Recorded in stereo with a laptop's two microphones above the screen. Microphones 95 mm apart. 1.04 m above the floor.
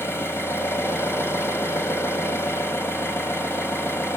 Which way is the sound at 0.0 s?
25° left (ahead or behind).